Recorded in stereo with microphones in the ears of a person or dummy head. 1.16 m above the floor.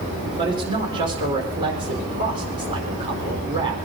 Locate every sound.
0.4 s a man speaking: 30° right (ahead or behind), 4.5 m